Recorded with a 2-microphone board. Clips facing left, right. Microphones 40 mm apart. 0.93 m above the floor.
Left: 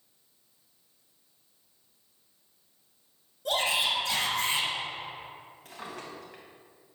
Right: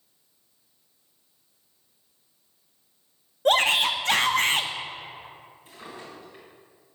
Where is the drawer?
75° left (ahead or behind), 3 m.